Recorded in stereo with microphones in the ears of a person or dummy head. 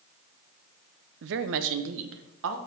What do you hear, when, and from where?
1.2 s a woman speaking: 60° right (ahead or behind), 0.6 m; by 2.6 s 75° right (ahead or behind), 1.4 m